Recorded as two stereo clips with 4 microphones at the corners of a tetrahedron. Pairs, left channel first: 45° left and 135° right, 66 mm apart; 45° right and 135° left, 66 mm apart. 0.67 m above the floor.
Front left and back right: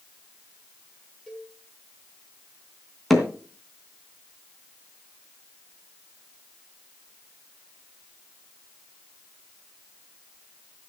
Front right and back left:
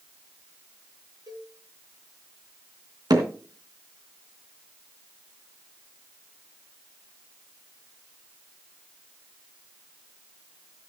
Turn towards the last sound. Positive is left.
turn(degrees=135)